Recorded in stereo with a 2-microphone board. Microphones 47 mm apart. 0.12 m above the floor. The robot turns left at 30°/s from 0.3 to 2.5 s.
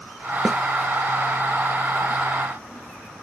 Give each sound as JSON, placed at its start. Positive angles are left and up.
{"t": 0.5, "sound": "a snare drum", "side_deg": 10, "distance_m": 0.9}